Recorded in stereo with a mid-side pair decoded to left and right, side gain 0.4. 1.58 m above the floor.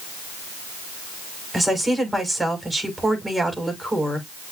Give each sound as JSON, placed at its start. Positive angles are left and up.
{"t": 1.5, "sound": "a woman speaking", "azimuth_deg": -20, "distance_m": 6.0}